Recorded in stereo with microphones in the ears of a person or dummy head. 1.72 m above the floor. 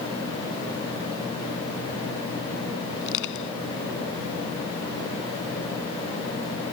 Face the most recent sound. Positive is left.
turn(degrees=70)  # may be behind; listen again after turning